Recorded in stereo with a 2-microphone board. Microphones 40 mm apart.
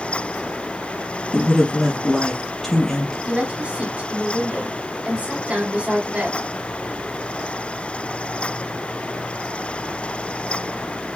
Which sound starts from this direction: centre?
A man speaking, at 1.3 s.